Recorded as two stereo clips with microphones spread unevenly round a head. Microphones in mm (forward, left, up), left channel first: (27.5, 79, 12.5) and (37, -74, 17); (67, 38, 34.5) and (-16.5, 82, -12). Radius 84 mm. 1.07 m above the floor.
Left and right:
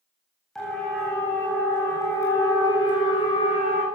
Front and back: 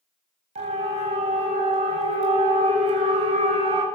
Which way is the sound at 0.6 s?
Straight behind.